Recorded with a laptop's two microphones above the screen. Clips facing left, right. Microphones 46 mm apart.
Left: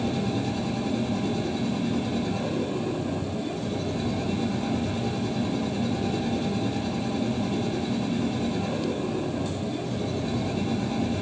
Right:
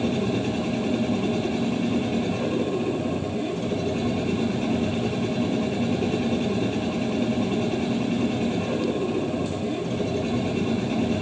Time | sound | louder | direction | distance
0.0 | a machine running | right 3 dB | 65° right (ahead or behind) | 6 m